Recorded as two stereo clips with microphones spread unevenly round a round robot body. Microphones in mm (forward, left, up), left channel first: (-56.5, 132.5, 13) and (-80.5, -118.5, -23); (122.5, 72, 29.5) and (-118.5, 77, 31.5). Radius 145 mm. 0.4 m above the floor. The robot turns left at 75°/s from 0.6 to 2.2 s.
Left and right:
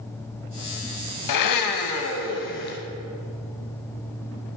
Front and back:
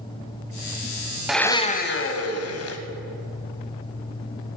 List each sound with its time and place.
1.3 s a blender: 90° left, 1.0 m; by 2.8 s 25° left, 1.0 m